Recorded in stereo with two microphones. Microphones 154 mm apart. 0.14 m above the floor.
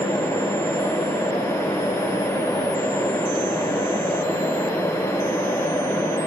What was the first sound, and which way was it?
Only background noise.